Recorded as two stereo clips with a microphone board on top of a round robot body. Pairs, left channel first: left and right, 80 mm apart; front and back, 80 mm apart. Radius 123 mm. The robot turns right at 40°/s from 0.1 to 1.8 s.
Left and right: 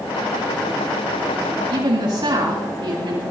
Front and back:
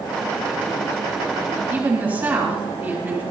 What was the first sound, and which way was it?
A woman speaking, 120° right.